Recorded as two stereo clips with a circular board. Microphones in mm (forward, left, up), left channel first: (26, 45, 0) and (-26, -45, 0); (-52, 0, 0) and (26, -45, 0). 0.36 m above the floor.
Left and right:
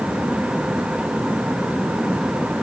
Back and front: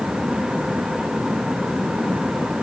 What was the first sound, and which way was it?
Only background noise.